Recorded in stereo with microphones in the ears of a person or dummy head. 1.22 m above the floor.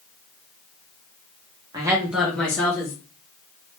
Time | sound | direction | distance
1.7 | a woman speaking | 20° right (ahead or behind) | 0.6 m